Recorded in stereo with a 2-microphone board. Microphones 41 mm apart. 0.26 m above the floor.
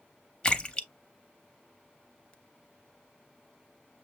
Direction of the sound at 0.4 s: 25° left (ahead or behind).